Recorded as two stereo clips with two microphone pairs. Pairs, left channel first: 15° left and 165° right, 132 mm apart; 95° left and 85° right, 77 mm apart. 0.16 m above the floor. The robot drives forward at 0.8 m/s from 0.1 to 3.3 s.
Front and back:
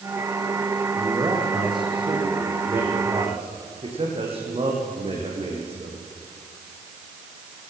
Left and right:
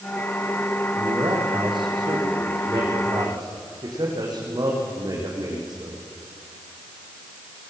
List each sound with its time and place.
0.9 s a man speaking: 105° right, 7 m; by 6.0 s 115° right, 7.5 m